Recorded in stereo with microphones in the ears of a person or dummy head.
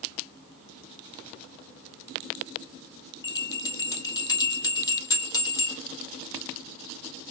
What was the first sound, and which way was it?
A bell, 20° left (ahead or behind).